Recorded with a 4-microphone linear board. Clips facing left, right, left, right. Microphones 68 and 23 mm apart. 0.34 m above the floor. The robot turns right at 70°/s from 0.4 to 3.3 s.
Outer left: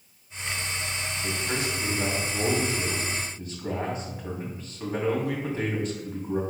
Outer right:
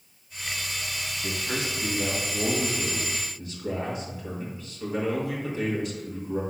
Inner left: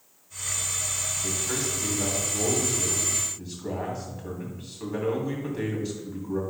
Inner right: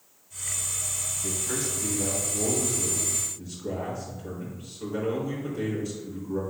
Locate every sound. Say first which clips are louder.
1.2 s a man speaking: outer left 1 dB, even; 20° right, 2.5 m; by 6.4 s 125° left, 2.5 m